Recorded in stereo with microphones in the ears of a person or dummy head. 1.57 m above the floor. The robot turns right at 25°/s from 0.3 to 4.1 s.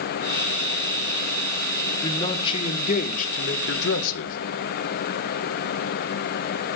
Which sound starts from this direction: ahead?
A man speaking, at 2.0 s.